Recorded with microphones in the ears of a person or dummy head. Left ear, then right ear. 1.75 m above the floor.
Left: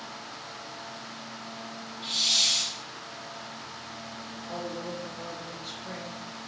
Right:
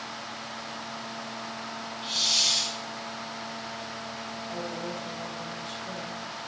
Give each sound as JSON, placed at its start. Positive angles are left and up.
{"t": 2.0, "sound": "a hiss", "side_deg": 20, "distance_m": 1.4}
{"t": 4.5, "sound": "a woman speaking", "side_deg": 75, "distance_m": 4.0}